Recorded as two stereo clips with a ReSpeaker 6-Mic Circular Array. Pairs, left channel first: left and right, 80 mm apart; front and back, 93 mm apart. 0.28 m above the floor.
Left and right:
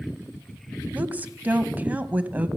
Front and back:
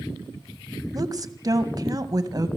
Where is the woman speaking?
155° right, 1.7 m.